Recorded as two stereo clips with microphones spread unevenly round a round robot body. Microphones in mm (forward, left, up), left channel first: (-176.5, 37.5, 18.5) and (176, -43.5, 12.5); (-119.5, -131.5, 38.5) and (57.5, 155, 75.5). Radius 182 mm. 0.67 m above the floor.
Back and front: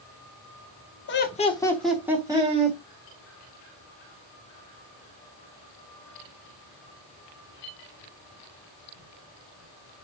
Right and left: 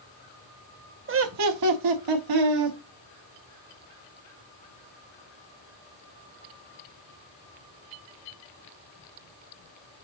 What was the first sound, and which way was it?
Laughter, 110° left.